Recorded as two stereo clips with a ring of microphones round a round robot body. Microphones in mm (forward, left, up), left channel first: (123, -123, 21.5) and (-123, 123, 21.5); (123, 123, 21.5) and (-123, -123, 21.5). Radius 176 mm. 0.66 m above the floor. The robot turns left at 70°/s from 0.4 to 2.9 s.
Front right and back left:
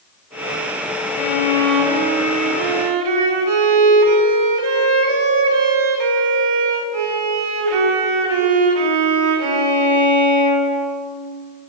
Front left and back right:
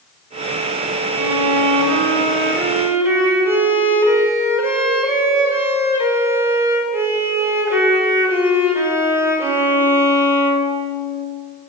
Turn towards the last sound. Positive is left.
turn(degrees=140)